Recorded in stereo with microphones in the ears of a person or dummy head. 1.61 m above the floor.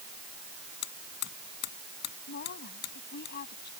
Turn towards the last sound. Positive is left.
turn(degrees=60)  # may be behind; listen again after turning